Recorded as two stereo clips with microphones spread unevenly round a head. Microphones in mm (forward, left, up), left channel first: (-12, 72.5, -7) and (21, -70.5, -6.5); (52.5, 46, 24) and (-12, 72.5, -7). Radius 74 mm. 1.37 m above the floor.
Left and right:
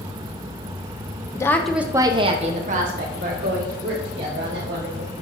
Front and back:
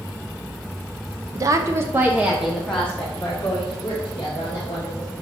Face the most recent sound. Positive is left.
turn(degrees=-90)